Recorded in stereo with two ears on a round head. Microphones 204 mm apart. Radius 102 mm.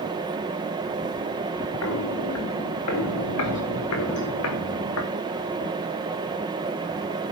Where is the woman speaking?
I don't hear a woman speaking.